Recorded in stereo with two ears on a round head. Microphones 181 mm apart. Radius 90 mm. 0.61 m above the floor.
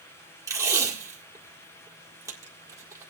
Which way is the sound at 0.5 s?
15° right (ahead or behind).